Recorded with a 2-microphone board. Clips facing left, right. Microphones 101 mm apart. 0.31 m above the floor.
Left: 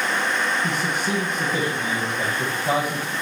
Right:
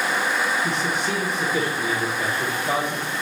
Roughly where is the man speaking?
Left.